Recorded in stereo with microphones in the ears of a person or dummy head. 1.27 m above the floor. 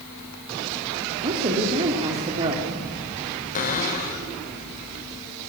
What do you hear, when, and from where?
1.2 s a woman speaking: 30° right (ahead or behind), 2.5 m
3.5 s a cupboard door: 40° left (ahead or behind), 3.5 m